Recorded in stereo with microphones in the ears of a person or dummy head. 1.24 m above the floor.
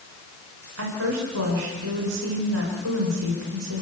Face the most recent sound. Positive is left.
turn(degrees=-85)